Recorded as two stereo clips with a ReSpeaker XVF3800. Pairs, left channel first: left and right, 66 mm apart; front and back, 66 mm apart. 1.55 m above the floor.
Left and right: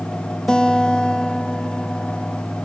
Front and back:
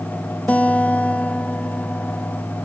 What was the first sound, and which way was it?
A guitar, 30° left.